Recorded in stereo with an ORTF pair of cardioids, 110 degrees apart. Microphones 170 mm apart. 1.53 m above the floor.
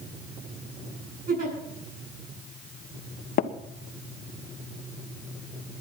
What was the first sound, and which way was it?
A giggle, 60° right.